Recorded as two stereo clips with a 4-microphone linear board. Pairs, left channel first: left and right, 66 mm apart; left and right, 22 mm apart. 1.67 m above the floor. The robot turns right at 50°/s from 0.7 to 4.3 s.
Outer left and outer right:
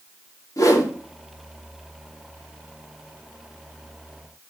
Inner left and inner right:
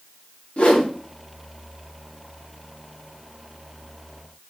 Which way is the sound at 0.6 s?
55° left (ahead or behind).